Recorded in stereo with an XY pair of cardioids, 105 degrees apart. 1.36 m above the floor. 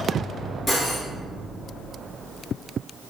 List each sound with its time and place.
0.7 s cutlery clinking: 20° left, 1.9 m